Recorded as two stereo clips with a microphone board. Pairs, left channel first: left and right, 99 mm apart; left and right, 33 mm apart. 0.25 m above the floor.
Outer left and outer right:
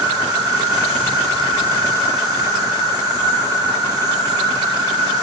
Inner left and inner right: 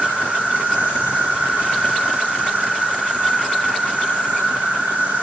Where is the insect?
40° right (ahead or behind), 3 m.